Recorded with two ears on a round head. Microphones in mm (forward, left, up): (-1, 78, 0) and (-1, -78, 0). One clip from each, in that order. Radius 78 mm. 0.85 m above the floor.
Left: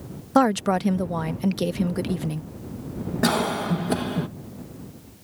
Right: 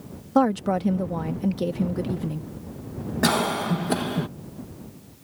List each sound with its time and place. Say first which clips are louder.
0.3 s a woman speaking: left 2 dB; 45° left (ahead or behind)
3.2 s a cough: right 1 dB; 10° right (ahead or behind)